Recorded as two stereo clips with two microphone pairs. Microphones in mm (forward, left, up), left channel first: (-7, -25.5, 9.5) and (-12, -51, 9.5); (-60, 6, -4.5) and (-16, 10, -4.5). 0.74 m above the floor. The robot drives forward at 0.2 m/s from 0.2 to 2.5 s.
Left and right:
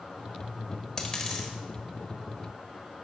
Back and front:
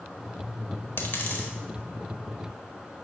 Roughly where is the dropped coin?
Behind left.